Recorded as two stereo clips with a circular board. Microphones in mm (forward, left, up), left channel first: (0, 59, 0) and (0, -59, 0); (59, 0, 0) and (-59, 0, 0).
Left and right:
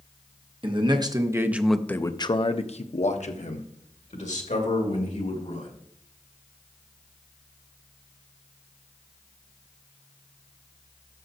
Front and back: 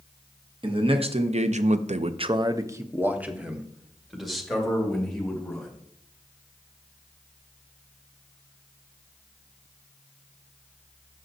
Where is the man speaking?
135° right, 1.0 m; by 5.7 s 85° left, 2.5 m.